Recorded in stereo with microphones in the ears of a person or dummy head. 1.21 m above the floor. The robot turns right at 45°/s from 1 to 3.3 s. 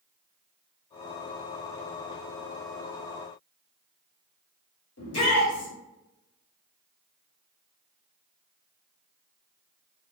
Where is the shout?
65° left (ahead or behind), 1.4 m.